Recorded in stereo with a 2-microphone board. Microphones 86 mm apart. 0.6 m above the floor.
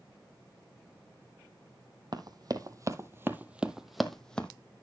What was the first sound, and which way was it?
Running footsteps, 50° right (ahead or behind).